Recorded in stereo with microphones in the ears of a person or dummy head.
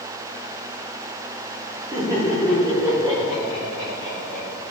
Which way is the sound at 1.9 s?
15° right (ahead or behind).